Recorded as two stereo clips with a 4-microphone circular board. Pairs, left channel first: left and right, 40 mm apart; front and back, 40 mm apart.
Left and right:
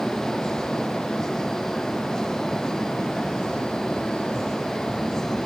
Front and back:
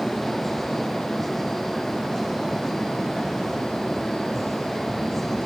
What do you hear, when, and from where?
Only background noise.